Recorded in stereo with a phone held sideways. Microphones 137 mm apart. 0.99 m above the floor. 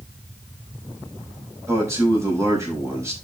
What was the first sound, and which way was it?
A man speaking, 20° right (ahead or behind).